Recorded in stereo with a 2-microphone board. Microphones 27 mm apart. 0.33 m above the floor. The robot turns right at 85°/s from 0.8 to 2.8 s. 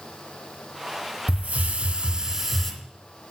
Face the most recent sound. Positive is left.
turn(degrees=15)